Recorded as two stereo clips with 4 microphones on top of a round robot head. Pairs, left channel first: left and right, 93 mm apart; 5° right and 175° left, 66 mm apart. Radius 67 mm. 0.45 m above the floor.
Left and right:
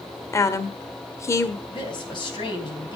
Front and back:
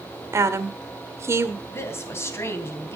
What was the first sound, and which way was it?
A woman speaking, 140° left.